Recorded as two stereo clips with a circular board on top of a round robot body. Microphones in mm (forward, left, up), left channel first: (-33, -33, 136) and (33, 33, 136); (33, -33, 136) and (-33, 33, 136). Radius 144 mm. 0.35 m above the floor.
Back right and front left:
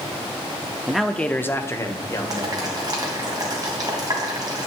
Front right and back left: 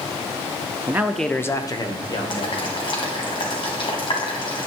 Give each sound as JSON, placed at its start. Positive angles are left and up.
{"t": 0.9, "sound": "a man speaking", "azimuth_deg": 125, "distance_m": 0.9}
{"t": 2.3, "sound": "boiling", "azimuth_deg": -5, "distance_m": 2.5}